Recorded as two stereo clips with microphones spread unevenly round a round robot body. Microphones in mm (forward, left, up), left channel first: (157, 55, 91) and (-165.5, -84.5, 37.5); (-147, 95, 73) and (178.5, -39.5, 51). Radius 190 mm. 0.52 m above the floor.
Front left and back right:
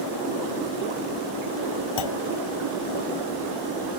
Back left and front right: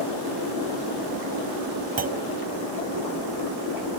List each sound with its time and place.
2.0 s a clunk: 45° left